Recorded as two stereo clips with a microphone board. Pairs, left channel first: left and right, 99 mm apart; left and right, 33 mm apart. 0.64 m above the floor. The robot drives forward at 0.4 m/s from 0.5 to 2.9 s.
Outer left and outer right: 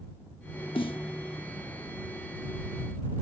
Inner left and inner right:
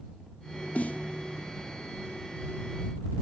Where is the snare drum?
60° left (ahead or behind); by 1.1 s 55° left (ahead or behind).